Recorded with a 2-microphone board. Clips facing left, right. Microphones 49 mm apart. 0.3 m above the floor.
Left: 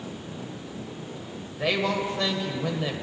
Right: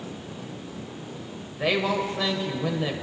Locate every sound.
1.6 s a woman speaking: 5° right (ahead or behind), 1.1 m